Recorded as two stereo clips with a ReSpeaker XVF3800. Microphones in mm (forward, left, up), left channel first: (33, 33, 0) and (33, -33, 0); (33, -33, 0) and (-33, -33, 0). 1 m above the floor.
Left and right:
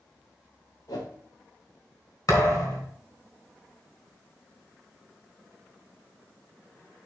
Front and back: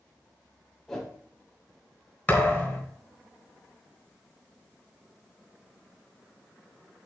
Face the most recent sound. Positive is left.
turn(degrees=70)